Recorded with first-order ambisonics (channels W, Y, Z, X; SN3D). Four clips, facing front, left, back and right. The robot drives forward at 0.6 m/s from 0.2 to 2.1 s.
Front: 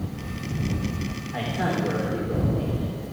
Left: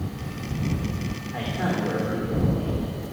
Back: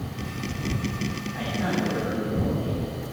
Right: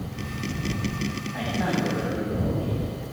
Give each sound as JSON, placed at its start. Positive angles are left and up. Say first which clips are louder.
{"t": 1.3, "sound": "a man speaking", "louder": "even, front 2 dB", "azimuth_deg": 30, "distance_m": 3.5}